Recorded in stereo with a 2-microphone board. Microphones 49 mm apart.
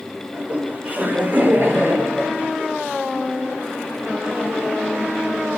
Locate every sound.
0.3 s laughter: 25° right (ahead or behind), 7.5 m; by 2.6 s 50° right (ahead or behind), 9 m